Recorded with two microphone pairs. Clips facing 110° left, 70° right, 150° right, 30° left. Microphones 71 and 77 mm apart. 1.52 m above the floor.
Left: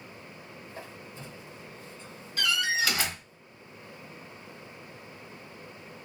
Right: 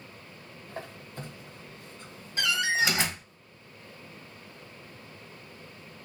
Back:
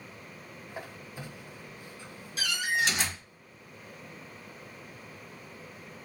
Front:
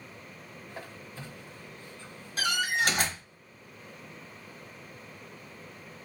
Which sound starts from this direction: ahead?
A door slam, at 2.4 s.